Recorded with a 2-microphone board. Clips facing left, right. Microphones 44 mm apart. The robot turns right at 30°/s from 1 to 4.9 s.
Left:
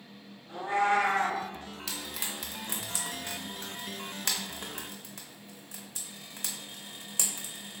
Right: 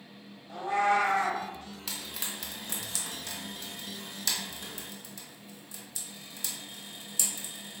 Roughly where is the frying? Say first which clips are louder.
Left 1 dB; centre.